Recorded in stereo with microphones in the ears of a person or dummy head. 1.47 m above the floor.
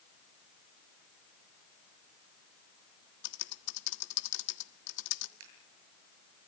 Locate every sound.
3.2 s typing on a keyboard: 65° left (ahead or behind), 1.5 m
5.4 s scissors: 75° right (ahead or behind), 8.5 m